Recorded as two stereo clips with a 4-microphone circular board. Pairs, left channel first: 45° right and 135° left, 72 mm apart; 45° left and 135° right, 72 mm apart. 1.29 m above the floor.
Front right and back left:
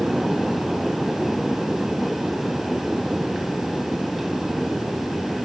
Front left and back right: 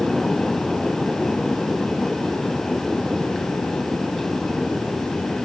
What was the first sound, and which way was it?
Only background noise.